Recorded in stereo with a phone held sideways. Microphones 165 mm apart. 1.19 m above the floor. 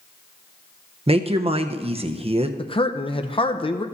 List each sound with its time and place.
1.1 s a woman speaking: 35° right (ahead or behind), 0.8 m
2.6 s a man speaking: 35° left (ahead or behind), 0.6 m